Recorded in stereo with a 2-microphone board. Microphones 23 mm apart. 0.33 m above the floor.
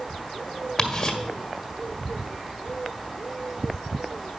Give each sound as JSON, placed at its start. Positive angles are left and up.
{"t": 0.8, "sound": "ticking", "side_deg": 10, "distance_m": 1.6}